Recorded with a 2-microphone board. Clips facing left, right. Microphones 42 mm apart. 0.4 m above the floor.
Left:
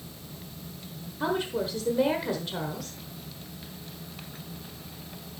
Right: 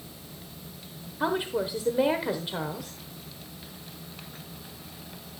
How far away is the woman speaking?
About 1.1 m.